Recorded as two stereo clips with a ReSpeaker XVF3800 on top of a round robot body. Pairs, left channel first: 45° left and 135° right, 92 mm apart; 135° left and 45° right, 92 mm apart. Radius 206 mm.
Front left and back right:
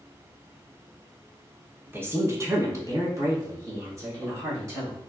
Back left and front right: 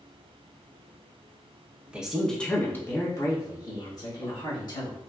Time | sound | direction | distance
1.9 | a woman speaking | 100° right | 0.8 m